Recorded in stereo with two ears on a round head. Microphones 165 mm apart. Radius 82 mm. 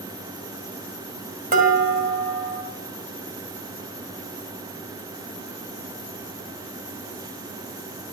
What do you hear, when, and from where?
1.5 s dishes clattering: 50° right (ahead or behind), 2.0 m